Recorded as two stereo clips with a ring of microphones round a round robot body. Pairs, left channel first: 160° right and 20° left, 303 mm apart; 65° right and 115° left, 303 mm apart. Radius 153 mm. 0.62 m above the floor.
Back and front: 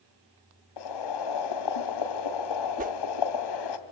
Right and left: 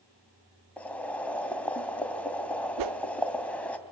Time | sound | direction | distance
0.8 | boiling | 155° right | 2.5 m
2.8 | a whoosh | 85° left | 0.7 m